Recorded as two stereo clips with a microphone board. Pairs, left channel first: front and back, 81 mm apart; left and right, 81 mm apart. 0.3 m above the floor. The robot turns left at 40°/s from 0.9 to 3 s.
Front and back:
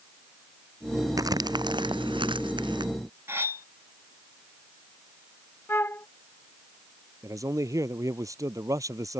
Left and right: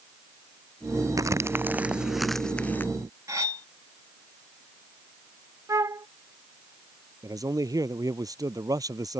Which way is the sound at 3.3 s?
125° right.